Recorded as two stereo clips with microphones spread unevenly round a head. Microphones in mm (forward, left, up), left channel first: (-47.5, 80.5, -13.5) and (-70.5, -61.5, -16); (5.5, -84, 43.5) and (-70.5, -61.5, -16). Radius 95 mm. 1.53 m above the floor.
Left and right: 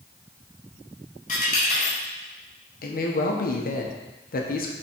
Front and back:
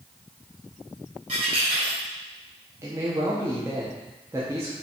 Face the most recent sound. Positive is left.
turn(degrees=100)